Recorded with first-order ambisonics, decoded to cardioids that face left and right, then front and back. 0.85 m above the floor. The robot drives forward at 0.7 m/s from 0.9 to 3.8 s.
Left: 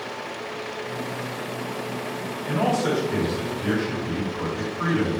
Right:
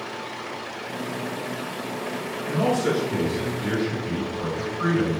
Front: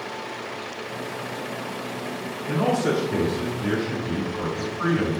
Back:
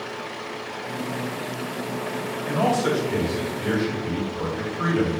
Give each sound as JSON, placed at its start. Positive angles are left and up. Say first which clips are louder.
{"t": 2.5, "sound": "a man speaking", "louder": "even, back 1 dB", "azimuth_deg": 170, "distance_m": 1.8}